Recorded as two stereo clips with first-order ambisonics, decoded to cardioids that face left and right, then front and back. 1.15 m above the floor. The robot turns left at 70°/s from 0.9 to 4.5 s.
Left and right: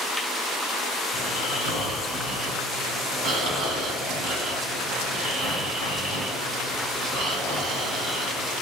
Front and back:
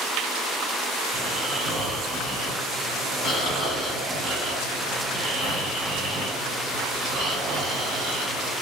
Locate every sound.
1.1 s snoring: 100° left, 1.2 m; by 8.5 s 135° right, 1.2 m